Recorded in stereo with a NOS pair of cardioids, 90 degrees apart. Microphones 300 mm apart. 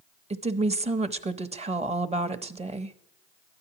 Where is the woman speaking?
20° right, 0.8 m.